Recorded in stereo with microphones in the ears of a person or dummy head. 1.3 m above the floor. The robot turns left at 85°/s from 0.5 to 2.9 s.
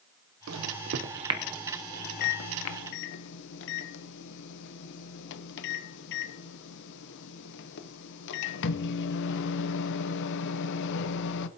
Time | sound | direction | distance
0.5 | a microwave | 85° right | 0.8 m